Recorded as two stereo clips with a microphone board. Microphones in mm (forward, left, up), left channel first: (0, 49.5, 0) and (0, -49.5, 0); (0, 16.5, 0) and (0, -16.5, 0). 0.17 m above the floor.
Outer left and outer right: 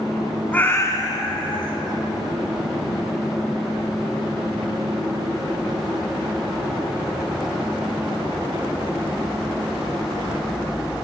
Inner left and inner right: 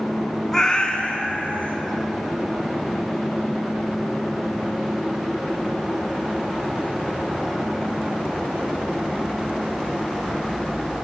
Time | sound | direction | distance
0.5 | a cat meowing | 15° left (ahead or behind) | 0.5 m